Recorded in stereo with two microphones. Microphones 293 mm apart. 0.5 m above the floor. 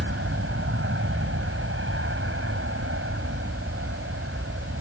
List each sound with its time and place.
0.0 s an aircraft: 45° right (ahead or behind)